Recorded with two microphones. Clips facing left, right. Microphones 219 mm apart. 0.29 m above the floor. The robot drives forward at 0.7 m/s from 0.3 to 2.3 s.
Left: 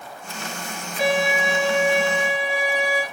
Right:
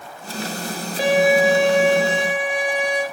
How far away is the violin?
About 1.7 m.